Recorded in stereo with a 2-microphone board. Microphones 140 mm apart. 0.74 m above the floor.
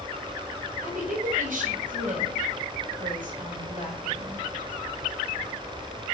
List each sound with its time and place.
0.8 s a woman speaking: 75° right (ahead or behind), 3.5 m